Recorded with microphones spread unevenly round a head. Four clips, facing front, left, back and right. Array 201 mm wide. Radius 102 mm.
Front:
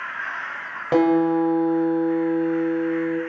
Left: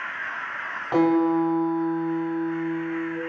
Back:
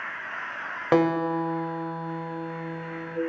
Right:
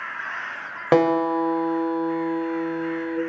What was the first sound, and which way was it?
A guitar, 100° right.